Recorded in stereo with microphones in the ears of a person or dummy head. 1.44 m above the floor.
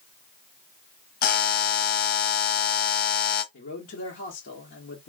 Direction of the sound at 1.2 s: 55° left (ahead or behind).